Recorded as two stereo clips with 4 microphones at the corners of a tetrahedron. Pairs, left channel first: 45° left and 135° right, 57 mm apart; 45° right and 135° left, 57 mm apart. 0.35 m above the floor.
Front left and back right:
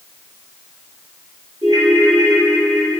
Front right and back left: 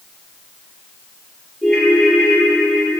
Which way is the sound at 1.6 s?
120° right.